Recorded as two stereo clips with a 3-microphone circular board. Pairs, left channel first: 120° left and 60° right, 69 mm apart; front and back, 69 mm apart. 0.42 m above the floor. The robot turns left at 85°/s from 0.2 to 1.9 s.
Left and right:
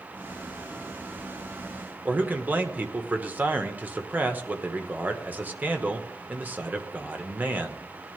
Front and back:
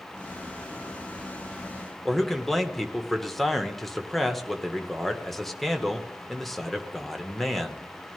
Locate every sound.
2.0 s a man speaking: 85° right, 1.1 m